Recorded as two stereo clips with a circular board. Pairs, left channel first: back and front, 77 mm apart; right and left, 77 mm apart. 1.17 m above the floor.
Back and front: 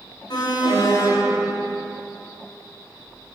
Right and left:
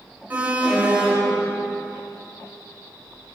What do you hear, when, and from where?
0.3 s an alarm: 160° left, 4.5 m